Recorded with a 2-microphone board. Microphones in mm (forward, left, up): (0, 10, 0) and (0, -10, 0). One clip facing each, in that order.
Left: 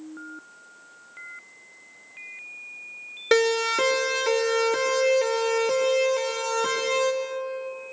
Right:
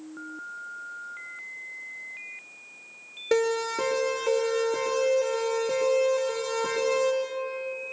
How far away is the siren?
About 3.5 m.